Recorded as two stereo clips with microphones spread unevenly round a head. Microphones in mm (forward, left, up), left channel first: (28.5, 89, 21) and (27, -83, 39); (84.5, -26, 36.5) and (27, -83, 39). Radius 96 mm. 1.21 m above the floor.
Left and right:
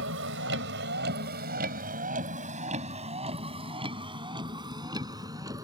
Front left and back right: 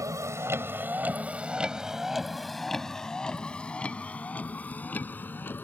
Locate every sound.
0.0 s a vehicle: 85° right; by 5.7 s 20° right